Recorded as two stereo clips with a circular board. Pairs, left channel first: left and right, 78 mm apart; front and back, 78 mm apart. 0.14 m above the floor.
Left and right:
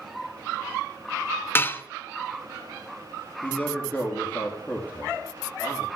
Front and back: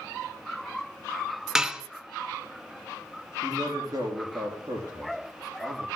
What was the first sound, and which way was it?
Dishes clattering, 110° left.